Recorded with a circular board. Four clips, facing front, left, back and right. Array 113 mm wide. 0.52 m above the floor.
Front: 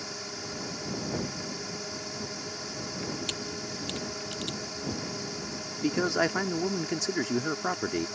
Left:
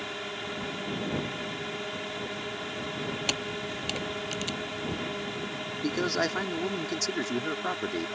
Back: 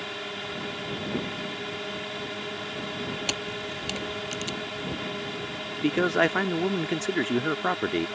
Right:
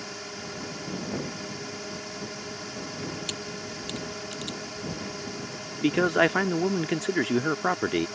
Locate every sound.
0.0 s a drone: 150° left
3.3 s a camera shutter: 135° left
5.8 s a man speaking: 120° right